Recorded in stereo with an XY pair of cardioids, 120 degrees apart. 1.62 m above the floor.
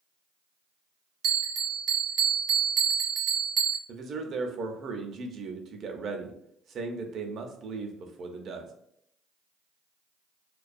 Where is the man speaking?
50° right, 0.5 m.